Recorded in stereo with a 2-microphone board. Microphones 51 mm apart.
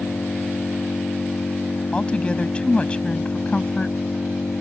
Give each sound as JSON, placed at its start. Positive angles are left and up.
{"t": 0.0, "sound": "an engine running", "side_deg": 60}
{"t": 1.9, "sound": "a woman speaking", "side_deg": 25}